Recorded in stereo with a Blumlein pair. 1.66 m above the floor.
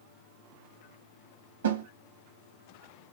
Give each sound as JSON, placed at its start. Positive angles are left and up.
{"t": 1.6, "sound": "a snare drum", "azimuth_deg": -65, "distance_m": 1.6}